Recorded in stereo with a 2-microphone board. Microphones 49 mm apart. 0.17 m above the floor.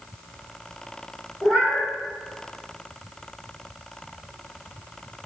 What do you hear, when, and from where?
1.4 s a cat meowing: 10° right (ahead or behind), 3 m